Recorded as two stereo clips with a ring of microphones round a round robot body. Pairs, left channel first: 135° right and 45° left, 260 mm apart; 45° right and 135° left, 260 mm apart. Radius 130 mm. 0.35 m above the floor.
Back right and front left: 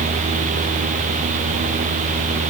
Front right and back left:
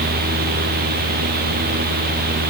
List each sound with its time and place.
Only background noise.